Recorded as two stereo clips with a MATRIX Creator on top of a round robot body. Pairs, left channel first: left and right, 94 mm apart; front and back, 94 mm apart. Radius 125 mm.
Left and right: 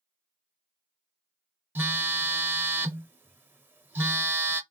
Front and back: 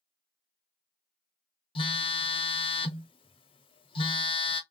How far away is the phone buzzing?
About 0.6 m.